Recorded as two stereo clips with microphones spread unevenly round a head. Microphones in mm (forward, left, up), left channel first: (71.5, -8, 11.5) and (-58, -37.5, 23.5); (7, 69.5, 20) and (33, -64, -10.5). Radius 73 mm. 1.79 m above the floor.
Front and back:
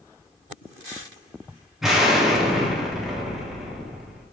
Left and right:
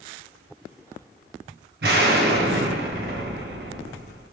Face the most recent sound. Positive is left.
turn(degrees=-85)